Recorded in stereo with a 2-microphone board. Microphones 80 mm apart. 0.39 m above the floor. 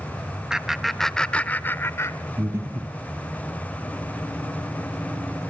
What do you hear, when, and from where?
0.5 s laughter: 10° right (ahead or behind), 1.1 m; by 2.2 s 40° left (ahead or behind), 1.1 m
2.4 s breathing: 40° right (ahead or behind), 5.5 m